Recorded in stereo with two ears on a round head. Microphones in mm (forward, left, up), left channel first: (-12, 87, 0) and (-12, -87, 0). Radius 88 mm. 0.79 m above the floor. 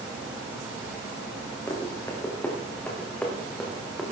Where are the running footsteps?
15° left (ahead or behind), 4.5 m; by 4.0 s centre (ahead or behind), 4 m.